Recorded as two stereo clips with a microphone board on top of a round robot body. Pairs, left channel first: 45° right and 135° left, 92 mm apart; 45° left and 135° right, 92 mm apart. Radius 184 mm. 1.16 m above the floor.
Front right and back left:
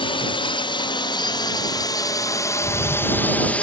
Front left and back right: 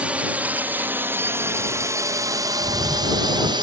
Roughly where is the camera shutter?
Ahead.